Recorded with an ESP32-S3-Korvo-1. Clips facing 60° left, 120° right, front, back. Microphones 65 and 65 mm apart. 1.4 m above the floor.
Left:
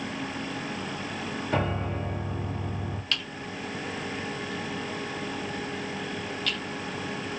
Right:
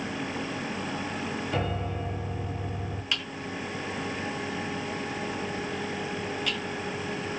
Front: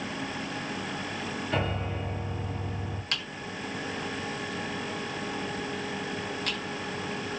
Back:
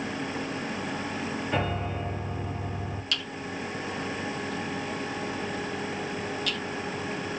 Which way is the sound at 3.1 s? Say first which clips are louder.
Right 3 dB, back 3 dB; 45° right.